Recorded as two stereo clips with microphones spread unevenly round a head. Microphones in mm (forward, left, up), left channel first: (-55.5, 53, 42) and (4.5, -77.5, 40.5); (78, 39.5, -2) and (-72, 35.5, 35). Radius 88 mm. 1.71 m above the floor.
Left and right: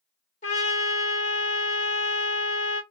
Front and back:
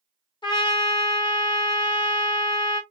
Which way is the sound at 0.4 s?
65° left.